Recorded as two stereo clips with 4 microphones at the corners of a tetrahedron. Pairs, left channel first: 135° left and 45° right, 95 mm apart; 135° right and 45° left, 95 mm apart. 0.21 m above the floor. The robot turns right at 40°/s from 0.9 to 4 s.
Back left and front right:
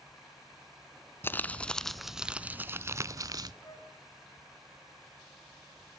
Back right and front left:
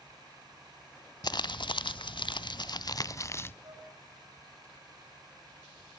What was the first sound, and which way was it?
Crumpling, 165° right.